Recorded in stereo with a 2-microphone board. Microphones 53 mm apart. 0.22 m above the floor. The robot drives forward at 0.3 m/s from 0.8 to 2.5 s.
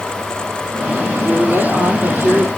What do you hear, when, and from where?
1.2 s a woman speaking: 65° right (ahead or behind), 8 m